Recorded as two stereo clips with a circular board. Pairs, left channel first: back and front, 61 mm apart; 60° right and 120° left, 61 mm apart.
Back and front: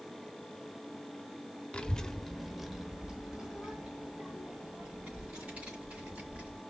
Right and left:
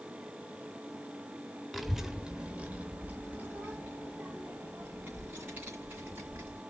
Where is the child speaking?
150° right, 0.9 m; by 6.6 s 65° left, 3.5 m.